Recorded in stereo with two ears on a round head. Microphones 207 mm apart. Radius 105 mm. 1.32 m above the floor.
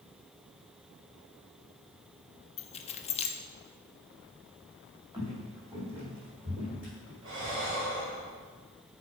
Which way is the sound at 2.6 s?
25° left (ahead or behind).